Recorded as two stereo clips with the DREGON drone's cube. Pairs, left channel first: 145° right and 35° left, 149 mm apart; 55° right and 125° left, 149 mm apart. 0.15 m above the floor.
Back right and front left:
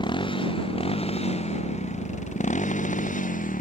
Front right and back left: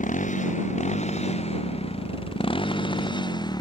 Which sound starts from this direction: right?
A motorcycle, at 0.0 s.